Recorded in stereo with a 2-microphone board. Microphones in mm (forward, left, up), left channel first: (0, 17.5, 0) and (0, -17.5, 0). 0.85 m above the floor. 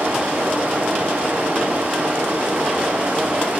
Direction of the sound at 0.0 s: 75° right (ahead or behind).